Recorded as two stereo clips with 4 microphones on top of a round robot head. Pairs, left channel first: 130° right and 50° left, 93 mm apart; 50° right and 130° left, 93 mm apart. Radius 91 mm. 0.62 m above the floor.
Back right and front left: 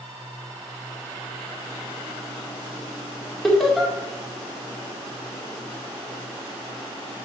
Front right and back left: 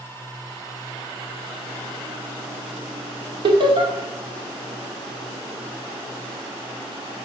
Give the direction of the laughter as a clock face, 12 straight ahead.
7 o'clock.